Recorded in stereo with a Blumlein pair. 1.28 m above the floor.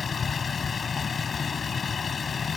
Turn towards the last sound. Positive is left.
turn(degrees=15)